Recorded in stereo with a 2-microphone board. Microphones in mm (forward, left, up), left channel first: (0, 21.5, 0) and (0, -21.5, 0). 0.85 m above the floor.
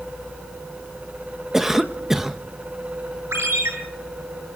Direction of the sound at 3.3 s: 85° right.